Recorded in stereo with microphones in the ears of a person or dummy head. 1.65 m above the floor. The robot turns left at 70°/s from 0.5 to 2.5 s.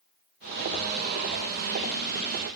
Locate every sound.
Only background noise.